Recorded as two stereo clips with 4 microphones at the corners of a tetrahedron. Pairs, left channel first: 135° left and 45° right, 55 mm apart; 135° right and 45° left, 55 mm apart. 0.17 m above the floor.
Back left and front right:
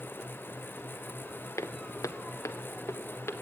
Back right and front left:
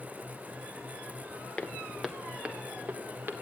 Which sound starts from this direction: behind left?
Footsteps, at 1.6 s.